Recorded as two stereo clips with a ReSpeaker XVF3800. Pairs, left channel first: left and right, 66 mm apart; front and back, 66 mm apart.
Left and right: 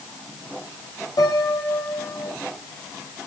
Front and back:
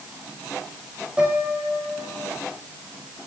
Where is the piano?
105° left, 3.5 m.